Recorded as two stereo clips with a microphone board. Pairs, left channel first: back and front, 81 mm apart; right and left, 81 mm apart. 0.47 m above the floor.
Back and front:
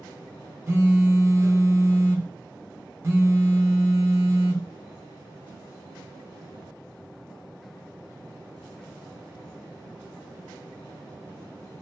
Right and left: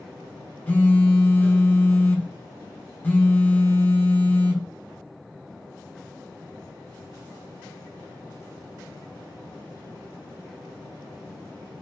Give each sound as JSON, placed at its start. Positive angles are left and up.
{"t": 0.7, "sound": "a phone buzzing", "azimuth_deg": -35, "distance_m": 0.7}